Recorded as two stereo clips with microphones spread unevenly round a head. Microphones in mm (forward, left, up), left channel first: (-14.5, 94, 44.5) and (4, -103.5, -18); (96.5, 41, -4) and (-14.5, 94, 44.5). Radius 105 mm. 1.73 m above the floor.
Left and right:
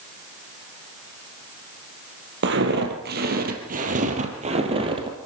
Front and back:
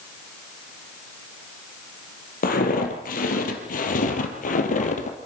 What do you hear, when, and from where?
2.4 s footsteps: 45° right, 3.5 m; by 5.2 s 10° right, 3 m